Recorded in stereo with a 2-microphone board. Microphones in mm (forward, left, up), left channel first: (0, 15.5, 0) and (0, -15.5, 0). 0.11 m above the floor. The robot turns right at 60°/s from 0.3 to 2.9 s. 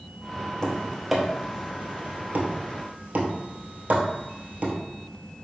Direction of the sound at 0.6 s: 20° left (ahead or behind).